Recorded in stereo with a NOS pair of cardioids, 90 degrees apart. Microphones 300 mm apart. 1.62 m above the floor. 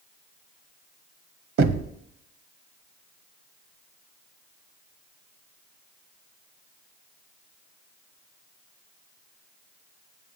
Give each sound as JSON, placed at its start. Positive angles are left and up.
{"t": 1.6, "sound": "knocking", "azimuth_deg": -50, "distance_m": 0.7}